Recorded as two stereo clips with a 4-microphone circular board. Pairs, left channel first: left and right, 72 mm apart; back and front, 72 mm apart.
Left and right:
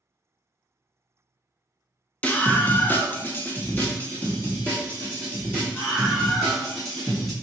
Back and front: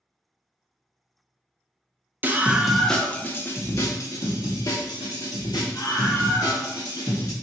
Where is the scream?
35° left, 0.6 m; by 7.3 s 165° left, 2.5 m.